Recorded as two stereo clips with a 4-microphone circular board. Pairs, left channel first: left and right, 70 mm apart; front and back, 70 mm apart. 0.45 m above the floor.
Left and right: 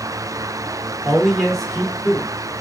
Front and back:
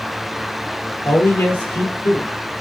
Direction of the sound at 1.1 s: 15° right.